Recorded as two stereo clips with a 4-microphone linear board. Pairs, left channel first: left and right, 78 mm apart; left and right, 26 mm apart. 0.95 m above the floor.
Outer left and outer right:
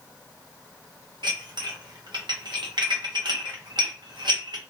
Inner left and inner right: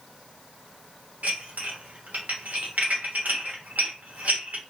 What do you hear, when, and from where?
1.2 s dishes clattering: 70° right (ahead or behind), 0.8 m